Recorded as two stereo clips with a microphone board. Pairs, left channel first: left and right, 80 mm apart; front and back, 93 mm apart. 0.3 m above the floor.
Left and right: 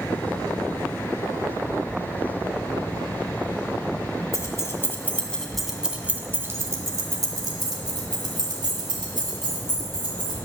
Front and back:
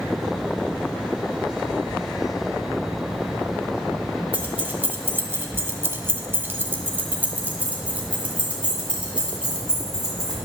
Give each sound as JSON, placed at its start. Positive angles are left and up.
{"t": 4.3, "sound": "keys jangling", "azimuth_deg": 110, "distance_m": 1.2}